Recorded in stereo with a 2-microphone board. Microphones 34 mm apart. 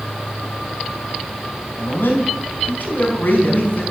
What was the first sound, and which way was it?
A man speaking, 65° left (ahead or behind).